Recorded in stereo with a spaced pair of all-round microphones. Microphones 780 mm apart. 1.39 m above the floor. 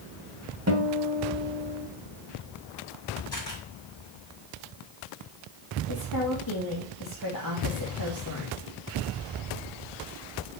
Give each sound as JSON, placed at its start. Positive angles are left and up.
{"t": 0.7, "sound": "a guitar", "side_deg": -20, "distance_m": 1.9}
{"t": 3.3, "sound": "a camera shutter", "side_deg": 60, "distance_m": 4.0}
{"t": 5.9, "sound": "a woman speaking", "side_deg": 25, "distance_m": 2.5}